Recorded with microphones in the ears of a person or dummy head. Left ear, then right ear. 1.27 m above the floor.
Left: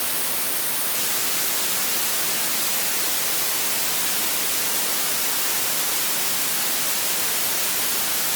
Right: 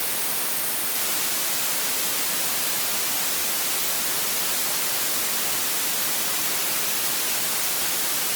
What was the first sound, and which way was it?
Only background noise.